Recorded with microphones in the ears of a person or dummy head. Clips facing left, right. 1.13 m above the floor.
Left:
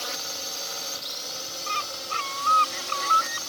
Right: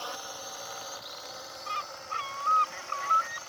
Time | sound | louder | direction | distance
0.0 | a drone | left 3 dB | 30° left (ahead or behind) | ?
1.7 | a bird | left 5 dB | 50° left (ahead or behind) | ?